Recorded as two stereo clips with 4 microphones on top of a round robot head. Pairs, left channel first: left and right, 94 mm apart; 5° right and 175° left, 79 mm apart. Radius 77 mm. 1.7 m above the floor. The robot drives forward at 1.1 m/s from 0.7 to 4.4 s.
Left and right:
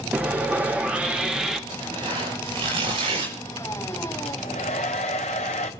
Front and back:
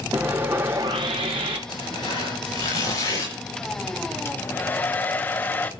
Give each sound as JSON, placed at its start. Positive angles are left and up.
{"t": 0.1, "sound": "sawing", "azimuth_deg": -135, "distance_m": 0.7}
{"t": 1.7, "sound": "tearing paper", "azimuth_deg": -45, "distance_m": 6.5}
{"t": 4.2, "sound": "a hair dryer", "azimuth_deg": 45, "distance_m": 0.9}